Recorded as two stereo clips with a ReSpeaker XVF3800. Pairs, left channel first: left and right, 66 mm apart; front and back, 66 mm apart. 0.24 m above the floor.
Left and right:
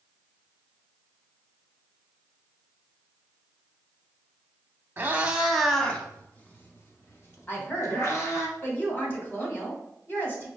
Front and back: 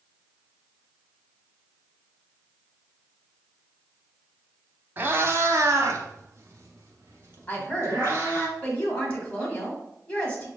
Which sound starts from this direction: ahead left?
A woman speaking, at 7.5 s.